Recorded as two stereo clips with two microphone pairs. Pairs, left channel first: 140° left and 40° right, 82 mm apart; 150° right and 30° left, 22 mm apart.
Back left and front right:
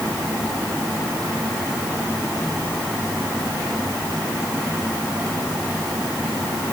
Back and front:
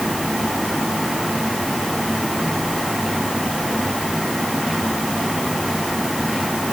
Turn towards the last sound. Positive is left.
No sound to turn to.